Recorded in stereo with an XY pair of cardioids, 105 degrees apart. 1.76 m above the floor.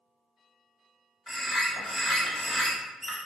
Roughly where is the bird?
Ahead.